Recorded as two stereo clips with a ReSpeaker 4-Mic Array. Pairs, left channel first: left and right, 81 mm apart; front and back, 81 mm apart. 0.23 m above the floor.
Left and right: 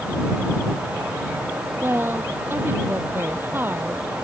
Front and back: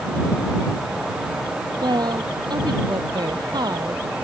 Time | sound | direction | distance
1.8 | a woman speaking | 155° right | ?